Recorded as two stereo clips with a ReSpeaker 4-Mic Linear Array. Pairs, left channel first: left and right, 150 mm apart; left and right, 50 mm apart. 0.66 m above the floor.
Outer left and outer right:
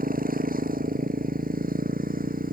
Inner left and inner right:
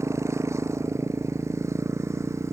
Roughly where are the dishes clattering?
No dishes clattering in this recording.